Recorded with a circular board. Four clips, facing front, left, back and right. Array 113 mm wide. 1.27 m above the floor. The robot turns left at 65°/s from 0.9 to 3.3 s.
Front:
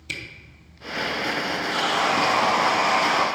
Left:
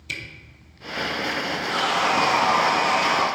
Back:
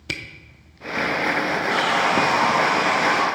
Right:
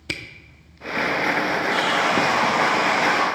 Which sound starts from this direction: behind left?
Sawing, at 1.7 s.